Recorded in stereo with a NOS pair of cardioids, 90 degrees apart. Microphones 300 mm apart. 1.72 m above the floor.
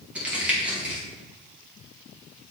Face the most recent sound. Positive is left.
turn(degrees=-5)